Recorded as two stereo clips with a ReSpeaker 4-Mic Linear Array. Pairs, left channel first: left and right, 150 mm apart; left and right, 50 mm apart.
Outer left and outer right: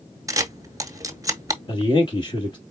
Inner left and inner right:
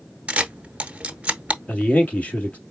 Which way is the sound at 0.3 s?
25° right (ahead or behind).